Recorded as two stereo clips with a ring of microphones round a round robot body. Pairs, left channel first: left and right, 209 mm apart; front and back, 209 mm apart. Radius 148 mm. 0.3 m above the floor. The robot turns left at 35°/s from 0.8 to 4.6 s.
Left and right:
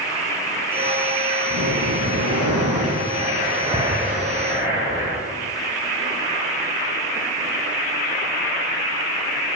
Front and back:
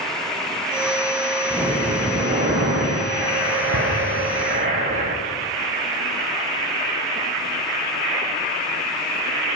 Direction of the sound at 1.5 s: 85° right.